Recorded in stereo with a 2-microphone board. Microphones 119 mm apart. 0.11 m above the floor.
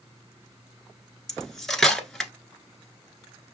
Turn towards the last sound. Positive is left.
turn(degrees=5)  # may be behind; listen again after turning